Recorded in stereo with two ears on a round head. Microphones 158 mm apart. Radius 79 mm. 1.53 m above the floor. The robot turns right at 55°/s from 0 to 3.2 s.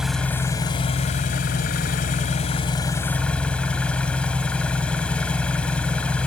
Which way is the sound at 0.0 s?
5° right.